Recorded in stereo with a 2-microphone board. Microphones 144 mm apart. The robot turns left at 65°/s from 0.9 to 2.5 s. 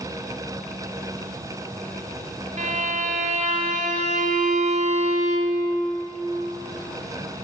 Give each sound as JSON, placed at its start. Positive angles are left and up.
{"t": 2.6, "sound": "a violin", "side_deg": -55, "distance_m": 1.3}